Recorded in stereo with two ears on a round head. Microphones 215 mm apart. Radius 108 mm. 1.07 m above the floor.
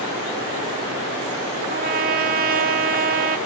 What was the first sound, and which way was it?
A trumpet, 40° right (ahead or behind).